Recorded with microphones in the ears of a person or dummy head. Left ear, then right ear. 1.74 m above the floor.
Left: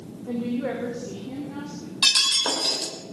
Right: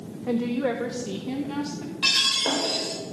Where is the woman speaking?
65° right (ahead or behind), 1.4 m; by 1.9 s 70° right (ahead or behind), 3.5 m.